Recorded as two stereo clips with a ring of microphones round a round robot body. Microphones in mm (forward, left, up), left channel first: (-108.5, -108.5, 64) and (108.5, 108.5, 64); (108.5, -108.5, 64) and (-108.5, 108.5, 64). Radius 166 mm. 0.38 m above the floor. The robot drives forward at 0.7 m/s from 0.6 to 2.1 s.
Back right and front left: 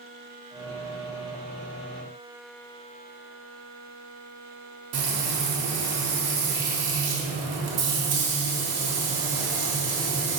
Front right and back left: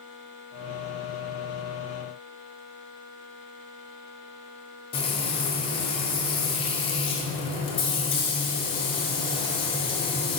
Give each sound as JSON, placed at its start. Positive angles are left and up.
{"t": 4.9, "sound": "frying", "azimuth_deg": 25, "distance_m": 1.5}